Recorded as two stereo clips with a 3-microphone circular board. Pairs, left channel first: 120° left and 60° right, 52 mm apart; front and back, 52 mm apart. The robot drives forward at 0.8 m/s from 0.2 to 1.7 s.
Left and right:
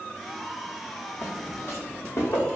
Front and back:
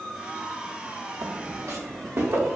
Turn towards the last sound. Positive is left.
turn(degrees=140)